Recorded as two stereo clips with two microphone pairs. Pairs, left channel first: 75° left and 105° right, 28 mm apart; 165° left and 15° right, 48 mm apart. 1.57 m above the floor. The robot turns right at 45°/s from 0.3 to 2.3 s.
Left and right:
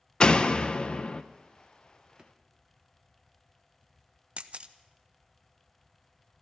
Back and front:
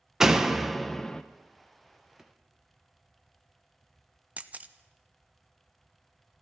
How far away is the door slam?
About 0.6 m.